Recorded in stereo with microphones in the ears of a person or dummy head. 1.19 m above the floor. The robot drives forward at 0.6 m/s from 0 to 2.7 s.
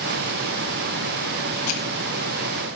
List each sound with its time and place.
1.7 s crushing: 85° left, 5.5 m